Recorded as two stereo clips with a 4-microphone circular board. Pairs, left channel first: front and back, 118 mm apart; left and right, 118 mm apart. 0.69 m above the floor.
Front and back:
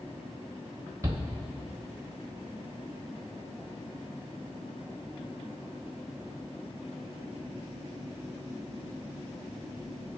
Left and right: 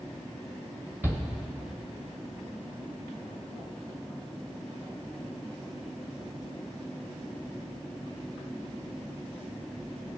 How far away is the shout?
About 0.9 m.